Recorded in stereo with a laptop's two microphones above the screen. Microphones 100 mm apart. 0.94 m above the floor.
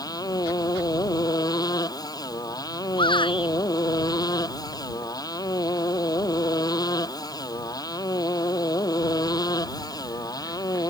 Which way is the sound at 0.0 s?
40° left (ahead or behind).